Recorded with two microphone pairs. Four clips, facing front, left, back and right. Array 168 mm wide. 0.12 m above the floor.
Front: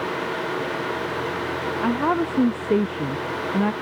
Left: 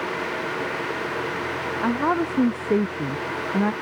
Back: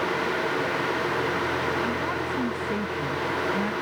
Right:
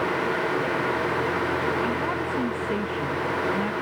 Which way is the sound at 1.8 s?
30° left.